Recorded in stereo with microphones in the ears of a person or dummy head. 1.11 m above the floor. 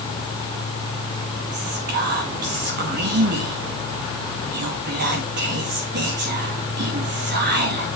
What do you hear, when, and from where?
1.5 s whispering: 50° right (ahead or behind), 1.9 m